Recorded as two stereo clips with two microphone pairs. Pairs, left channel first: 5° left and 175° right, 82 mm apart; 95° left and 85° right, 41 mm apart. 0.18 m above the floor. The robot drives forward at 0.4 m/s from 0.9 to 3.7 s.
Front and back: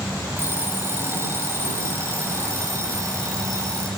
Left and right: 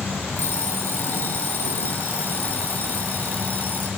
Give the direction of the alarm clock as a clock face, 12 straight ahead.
8 o'clock.